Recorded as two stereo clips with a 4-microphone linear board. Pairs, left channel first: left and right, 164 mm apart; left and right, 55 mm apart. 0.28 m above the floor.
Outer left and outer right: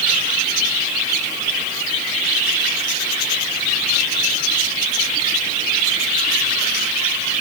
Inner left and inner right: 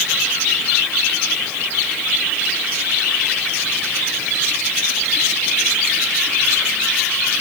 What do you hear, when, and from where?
Only background noise.